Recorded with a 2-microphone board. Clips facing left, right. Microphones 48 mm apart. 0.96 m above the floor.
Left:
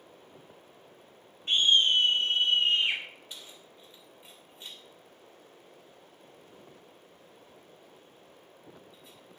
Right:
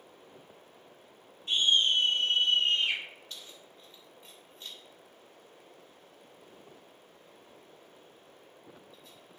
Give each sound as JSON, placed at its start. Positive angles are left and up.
{"t": 1.5, "sound": "a scream", "side_deg": 40, "distance_m": 3.0}
{"t": 3.3, "sound": "keys jangling", "side_deg": 15, "distance_m": 2.5}